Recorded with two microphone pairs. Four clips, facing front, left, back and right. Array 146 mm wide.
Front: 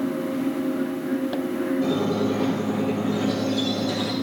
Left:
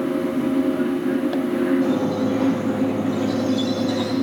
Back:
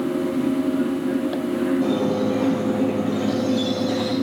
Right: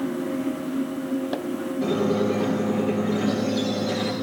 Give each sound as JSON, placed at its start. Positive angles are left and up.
{"t": 1.8, "sound": "a squeak", "azimuth_deg": -60, "distance_m": 4.5}